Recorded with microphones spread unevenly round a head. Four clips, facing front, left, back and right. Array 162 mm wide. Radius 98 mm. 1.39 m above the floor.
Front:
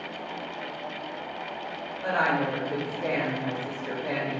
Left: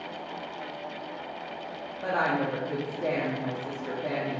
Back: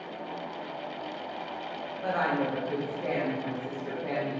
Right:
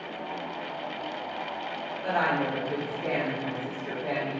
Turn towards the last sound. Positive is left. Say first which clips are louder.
# even, front 2 dB
turn(degrees=100)